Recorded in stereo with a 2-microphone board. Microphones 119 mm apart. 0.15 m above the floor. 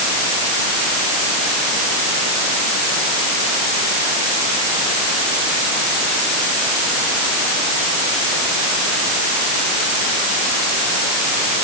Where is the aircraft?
I don't hear an aircraft.